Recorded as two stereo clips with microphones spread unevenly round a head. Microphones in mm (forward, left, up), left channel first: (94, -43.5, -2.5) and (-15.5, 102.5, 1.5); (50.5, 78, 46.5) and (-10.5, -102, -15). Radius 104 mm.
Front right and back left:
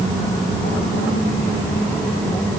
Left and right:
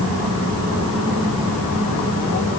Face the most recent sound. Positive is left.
No sound to turn to.